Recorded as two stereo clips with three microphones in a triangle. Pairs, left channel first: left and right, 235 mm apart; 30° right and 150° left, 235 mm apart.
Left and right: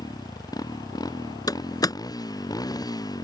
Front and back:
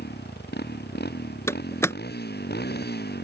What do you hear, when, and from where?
0.0 s a motorcycle: 15° left
1.5 s a door slam: 35° left